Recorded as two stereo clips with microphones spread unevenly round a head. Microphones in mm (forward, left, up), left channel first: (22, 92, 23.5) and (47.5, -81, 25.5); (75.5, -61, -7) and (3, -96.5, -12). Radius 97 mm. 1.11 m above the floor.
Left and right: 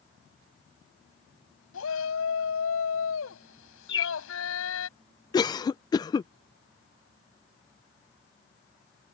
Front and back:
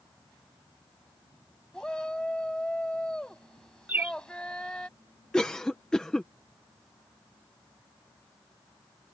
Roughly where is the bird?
Behind left.